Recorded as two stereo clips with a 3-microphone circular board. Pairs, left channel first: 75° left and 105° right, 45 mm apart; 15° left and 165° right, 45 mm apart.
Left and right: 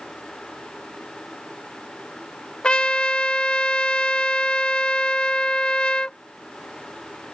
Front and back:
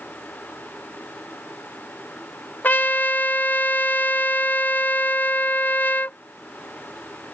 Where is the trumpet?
20° left.